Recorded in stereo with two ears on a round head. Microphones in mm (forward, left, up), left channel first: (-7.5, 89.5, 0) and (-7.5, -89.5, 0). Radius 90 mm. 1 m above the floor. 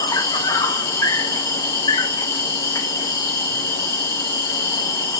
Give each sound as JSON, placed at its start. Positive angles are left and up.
{"t": 0.0, "sound": "an insect", "side_deg": 15, "distance_m": 1.0}